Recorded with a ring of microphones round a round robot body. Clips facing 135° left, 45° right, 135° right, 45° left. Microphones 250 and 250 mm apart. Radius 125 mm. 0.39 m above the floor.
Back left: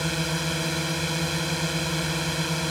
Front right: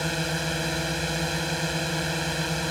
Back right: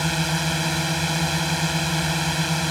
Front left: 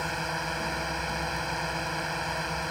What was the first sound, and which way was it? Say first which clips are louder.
A drone: back left 1 dB, back right 9 dB; 145° right.